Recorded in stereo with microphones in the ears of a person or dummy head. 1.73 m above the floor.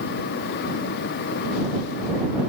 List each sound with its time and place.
Only background noise.